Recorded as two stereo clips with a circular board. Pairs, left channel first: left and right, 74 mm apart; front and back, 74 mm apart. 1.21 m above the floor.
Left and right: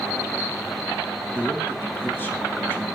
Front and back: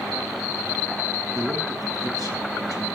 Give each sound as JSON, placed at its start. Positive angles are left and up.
{"t": 1.4, "sound": "a man speaking", "azimuth_deg": 150, "distance_m": 2.5}